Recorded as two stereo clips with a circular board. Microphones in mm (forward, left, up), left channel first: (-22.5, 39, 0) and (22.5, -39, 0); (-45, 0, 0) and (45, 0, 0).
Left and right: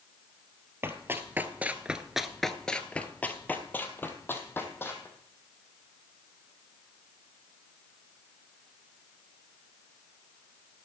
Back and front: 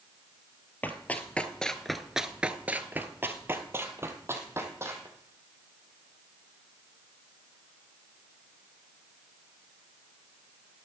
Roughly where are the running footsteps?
Behind right.